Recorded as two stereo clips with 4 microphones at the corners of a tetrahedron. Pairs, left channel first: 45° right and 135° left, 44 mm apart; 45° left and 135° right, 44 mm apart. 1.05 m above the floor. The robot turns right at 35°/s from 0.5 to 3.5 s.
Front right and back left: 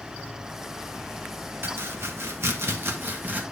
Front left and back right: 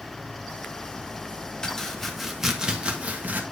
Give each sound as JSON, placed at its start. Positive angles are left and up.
{"t": 1.6, "sound": "chopping", "azimuth_deg": 115, "distance_m": 1.2}